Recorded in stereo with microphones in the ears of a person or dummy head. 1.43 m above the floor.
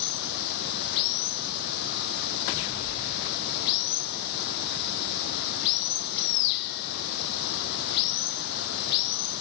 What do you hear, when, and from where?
0.0 s running water: 60° left (ahead or behind)